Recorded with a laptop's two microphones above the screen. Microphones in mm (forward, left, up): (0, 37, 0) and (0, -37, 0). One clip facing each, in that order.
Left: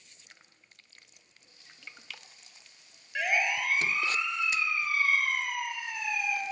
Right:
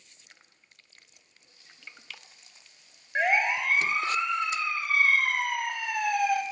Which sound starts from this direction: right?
A siren, at 3.1 s.